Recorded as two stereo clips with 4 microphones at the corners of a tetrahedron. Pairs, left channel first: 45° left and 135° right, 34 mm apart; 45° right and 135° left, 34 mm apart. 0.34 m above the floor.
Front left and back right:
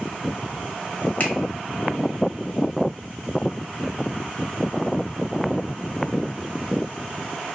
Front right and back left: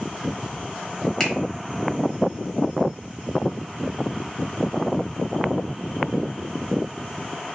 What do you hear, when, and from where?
1.2 s a finger snap: 25° left, 1.0 m